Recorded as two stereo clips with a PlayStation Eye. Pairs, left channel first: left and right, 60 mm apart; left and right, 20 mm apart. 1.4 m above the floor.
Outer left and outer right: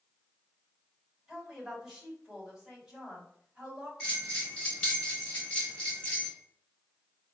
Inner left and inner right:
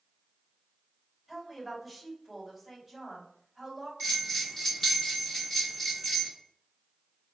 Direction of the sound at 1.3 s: 5° right (ahead or behind).